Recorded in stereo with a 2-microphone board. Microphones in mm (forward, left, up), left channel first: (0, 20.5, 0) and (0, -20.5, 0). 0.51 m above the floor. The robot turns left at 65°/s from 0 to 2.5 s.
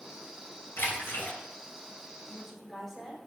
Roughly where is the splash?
Left.